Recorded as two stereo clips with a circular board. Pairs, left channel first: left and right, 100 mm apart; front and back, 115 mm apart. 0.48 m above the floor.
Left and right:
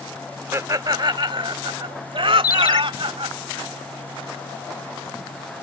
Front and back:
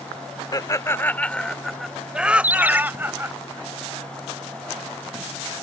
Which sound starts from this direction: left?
A ringtone, at 2.4 s.